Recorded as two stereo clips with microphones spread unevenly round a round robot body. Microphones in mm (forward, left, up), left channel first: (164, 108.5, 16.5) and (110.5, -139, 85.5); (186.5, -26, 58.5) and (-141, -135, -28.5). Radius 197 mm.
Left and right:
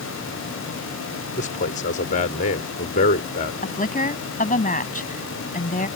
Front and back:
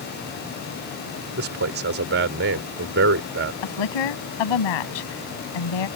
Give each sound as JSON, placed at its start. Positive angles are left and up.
{"t": 1.4, "sound": "a man speaking", "azimuth_deg": 140}
{"t": 3.6, "sound": "a woman speaking", "azimuth_deg": 20}